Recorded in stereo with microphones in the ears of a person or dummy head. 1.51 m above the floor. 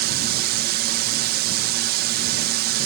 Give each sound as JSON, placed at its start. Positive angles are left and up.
{"t": 0.0, "sound": "a drone", "side_deg": -55}